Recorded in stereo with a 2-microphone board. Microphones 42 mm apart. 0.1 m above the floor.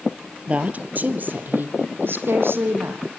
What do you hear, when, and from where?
0.5 s a woman speaking: 30° right (ahead or behind), 1.7 m; by 3.0 s 65° right (ahead or behind), 4.5 m